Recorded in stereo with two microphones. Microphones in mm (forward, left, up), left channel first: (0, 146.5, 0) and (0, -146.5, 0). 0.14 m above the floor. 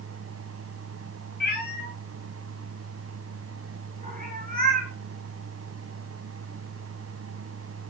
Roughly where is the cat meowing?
Left.